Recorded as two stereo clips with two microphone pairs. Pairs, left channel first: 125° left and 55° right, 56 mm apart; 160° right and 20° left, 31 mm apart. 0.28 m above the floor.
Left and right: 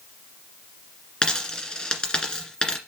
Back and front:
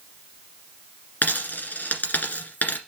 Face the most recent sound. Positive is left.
turn(degrees=-165)